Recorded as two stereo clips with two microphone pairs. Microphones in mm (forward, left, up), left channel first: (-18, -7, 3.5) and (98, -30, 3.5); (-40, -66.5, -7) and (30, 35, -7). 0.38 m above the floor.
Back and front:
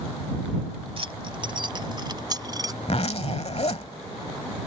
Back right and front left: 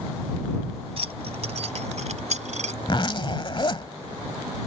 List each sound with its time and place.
1.0 s keys jangling: 25° left; by 2.7 s 45° left
2.8 s a zipper: 170° right